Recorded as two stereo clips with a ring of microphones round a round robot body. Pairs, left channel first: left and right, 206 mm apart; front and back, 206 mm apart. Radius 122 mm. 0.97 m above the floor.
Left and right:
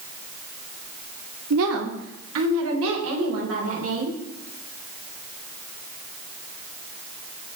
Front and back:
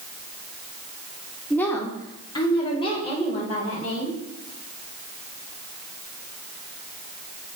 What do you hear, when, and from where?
1.5 s a woman speaking: 85° right, 2 m; by 4.2 s 65° right, 6 m